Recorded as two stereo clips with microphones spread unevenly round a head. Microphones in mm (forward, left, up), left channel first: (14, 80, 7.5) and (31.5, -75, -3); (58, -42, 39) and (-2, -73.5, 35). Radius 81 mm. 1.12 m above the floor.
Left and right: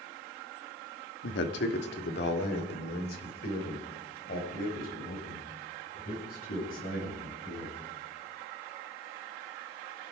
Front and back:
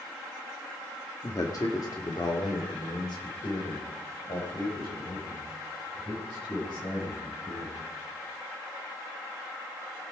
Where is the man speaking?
90° left, 1.7 m; by 7.8 s 65° left, 8.5 m.